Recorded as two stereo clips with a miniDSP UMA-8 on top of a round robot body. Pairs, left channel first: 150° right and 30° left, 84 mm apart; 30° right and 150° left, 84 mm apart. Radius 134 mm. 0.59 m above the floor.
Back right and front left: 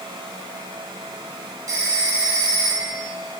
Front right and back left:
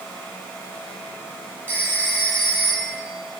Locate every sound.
1.7 s a phone ringing: 80° left, 4.5 m